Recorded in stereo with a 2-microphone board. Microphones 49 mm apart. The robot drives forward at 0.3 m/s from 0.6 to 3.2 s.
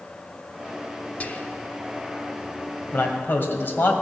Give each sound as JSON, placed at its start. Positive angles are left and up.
{"t": 1.2, "sound": "whispering", "side_deg": 35, "distance_m": 0.9}
{"t": 2.9, "sound": "a man speaking", "side_deg": 50, "distance_m": 2.0}